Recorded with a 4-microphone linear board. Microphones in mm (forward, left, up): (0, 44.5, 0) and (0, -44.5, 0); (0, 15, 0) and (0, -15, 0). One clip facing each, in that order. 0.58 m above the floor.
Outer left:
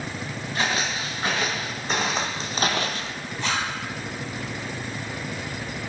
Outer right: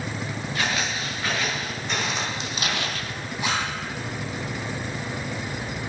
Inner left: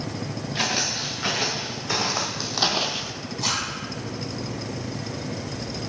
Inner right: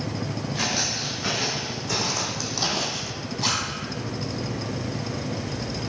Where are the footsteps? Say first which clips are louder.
Outer left 2 dB, inner left 2 dB; 35° left (ahead or behind), 3.5 m; by 3.1 s 20° left (ahead or behind), 0.6 m.